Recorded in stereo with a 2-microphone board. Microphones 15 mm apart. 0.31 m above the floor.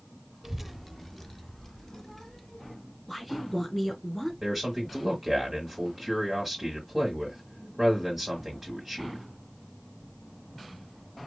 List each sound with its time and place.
0.4 s a child speaking: 20° right (ahead or behind), 0.5 m; by 2.8 s 35° left (ahead or behind), 2.5 m
3.1 s a woman speaking: 10° left (ahead or behind), 2.5 m
4.4 s a man speaking: 10° right (ahead or behind), 1.8 m